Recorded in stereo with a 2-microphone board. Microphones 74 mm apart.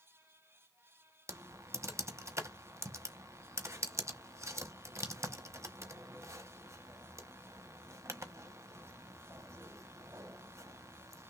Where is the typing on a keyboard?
40° right (ahead or behind), 1.1 m.